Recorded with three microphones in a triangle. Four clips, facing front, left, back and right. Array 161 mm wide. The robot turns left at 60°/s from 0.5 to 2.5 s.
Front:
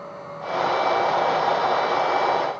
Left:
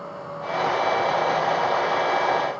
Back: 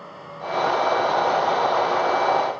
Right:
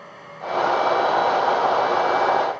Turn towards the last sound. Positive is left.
No sound to turn to.